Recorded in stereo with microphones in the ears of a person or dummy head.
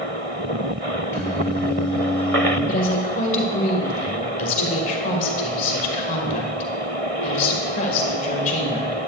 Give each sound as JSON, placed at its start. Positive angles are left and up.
{"t": 1.1, "sound": "singing", "side_deg": 15, "distance_m": 3.5}
{"t": 2.7, "sound": "a woman speaking", "side_deg": 45, "distance_m": 1.5}